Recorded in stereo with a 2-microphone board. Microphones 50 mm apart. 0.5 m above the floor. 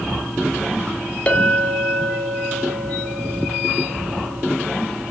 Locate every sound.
1.3 s a clink: 30° left (ahead or behind), 0.7 m